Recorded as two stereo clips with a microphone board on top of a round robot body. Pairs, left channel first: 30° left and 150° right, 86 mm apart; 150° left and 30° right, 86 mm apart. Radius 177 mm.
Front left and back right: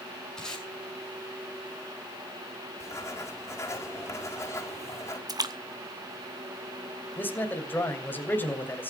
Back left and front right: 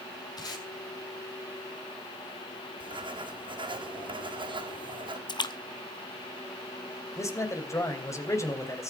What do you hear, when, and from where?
0.4 s tape being pulled: 115° left, 7 m
2.8 s writing: 30° right, 4.5 m
5.3 s a splash: 170° left, 1.8 m
7.2 s a man speaking: 95° left, 3.5 m